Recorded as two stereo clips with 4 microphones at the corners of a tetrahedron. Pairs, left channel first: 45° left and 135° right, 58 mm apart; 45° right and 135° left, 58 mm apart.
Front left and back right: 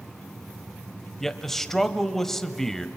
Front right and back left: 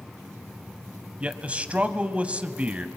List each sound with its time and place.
1.2 s a man speaking: 115° left, 1.0 m